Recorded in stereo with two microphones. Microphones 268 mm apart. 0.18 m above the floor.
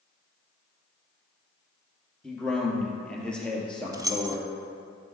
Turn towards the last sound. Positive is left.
turn(degrees=-15)  # may be behind; listen again after turning